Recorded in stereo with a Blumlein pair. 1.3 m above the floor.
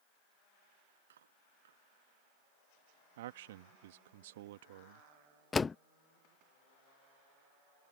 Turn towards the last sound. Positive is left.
turn(degrees=15)